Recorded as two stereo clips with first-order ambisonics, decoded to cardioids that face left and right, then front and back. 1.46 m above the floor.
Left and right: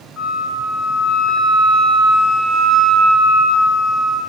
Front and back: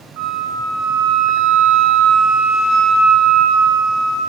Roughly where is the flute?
Behind.